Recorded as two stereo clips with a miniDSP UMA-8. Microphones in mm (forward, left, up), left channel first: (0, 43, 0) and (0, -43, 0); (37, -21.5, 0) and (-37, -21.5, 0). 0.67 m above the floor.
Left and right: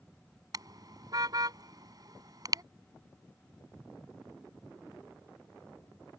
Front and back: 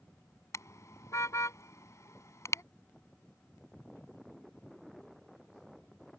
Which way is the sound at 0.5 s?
50° right.